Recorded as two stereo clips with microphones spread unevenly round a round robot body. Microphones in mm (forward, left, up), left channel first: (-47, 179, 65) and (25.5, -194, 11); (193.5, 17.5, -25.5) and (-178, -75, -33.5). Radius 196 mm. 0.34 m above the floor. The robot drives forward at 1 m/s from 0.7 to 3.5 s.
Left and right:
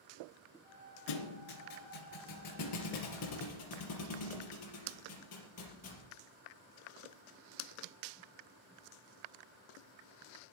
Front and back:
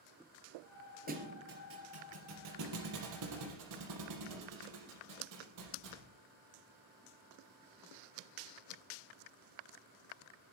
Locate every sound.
1.1 s a thud: 125° left, 2.5 m; by 6.1 s 155° left, 4.5 m